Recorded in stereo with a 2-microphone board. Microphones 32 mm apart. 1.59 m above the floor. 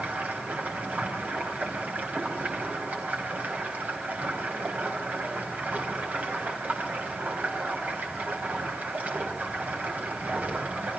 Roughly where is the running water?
Right.